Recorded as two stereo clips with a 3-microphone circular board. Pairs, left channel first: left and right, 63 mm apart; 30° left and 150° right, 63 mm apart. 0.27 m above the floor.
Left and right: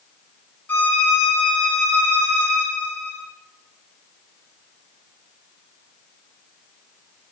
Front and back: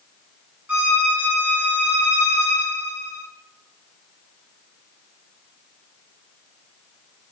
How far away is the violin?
About 1.8 m.